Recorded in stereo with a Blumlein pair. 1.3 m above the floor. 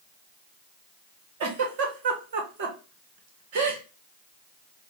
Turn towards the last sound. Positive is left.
turn(degrees=-50)